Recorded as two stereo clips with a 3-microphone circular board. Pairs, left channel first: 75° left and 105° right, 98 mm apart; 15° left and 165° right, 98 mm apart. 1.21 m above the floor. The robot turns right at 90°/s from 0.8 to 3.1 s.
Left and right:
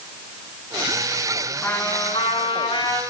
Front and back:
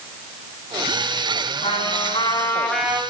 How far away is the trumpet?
About 5.5 m.